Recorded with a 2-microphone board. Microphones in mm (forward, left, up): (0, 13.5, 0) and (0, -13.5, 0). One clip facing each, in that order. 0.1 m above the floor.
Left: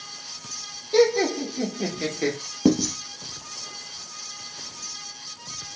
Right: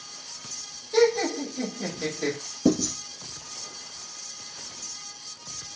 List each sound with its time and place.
0.9 s laughter: 45° left (ahead or behind), 2.5 m; by 2.4 s 40° left (ahead or behind), 1.7 m
2.6 s writing: 40° left (ahead or behind), 1.2 m